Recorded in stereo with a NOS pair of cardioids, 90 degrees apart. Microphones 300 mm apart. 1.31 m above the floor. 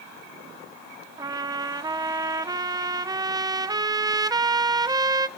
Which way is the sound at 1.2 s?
15° right.